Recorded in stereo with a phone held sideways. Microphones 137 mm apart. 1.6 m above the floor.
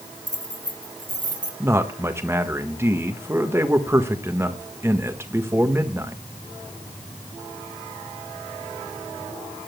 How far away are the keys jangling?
About 3 m.